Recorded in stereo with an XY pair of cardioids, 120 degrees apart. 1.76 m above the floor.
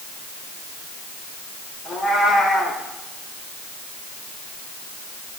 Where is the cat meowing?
50° left, 3.5 m.